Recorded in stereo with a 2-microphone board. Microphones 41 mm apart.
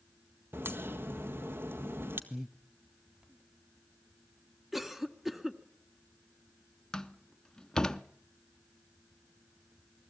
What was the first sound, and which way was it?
A crack, 70° right (ahead or behind).